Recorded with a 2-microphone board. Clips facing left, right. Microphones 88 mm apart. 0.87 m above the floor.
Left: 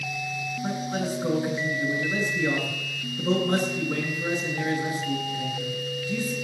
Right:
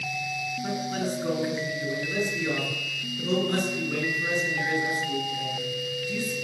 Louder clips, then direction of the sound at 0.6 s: Left 1 dB; 20° left (ahead or behind).